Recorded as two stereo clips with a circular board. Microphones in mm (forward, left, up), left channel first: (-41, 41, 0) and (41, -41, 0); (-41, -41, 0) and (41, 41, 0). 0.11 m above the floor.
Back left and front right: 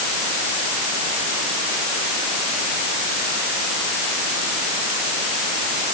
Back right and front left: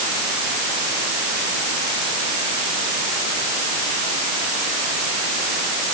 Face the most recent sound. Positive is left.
No sound to turn to.